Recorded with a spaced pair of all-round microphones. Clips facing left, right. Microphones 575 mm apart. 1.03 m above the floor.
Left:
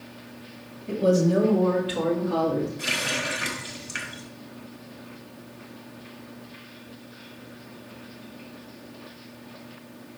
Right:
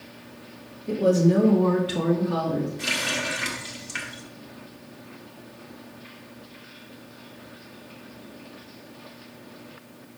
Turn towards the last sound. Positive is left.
turn(degrees=-25)  # may be behind; listen again after turning